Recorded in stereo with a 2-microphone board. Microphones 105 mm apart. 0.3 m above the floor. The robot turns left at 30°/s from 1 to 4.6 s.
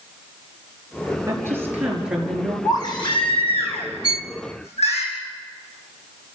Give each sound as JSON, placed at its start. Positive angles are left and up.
{"t": 1.3, "sound": "a woman speaking", "azimuth_deg": -150, "distance_m": 5.5}
{"t": 2.6, "sound": "a baby crying", "azimuth_deg": 145, "distance_m": 5.0}
{"t": 4.0, "sound": "a violin", "side_deg": -45, "distance_m": 0.5}